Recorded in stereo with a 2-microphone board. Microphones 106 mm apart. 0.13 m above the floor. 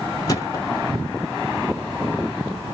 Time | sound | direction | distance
0.3 | a thud | 35° left (ahead or behind) | 1.2 m